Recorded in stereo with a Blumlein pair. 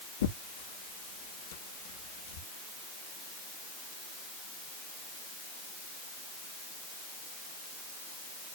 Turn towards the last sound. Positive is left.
turn(degrees=60)